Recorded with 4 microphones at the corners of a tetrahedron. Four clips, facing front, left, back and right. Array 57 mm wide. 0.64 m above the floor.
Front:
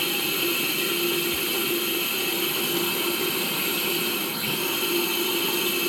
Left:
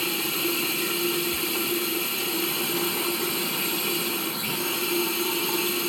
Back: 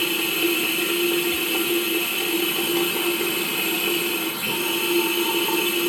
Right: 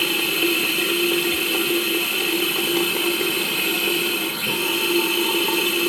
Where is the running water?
110° right, 1.0 m.